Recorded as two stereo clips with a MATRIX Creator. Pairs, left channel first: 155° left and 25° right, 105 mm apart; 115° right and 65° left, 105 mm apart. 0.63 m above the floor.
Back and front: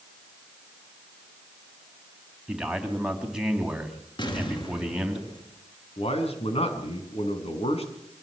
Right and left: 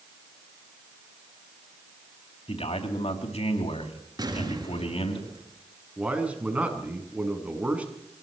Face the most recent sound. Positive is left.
turn(degrees=145)